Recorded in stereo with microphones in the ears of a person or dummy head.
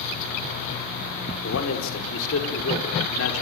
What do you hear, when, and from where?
1.4 s a man speaking: 75° left (ahead or behind), 5 m